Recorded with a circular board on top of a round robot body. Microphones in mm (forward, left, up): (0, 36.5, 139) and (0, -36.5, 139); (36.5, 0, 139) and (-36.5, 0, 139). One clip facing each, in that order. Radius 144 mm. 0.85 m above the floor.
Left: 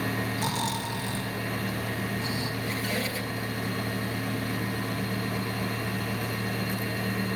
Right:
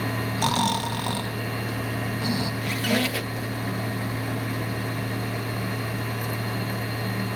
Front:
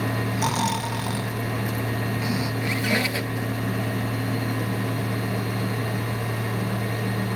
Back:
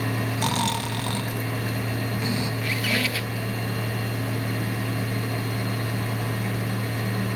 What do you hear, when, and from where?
0.4 s snoring: 80° right, 1.4 m
2.6 s a squeak: 65° right, 1.0 m